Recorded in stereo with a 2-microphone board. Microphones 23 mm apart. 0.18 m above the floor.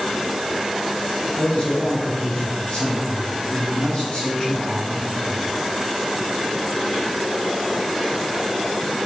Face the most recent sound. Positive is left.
turn(degrees=50)  # may be behind; listen again after turning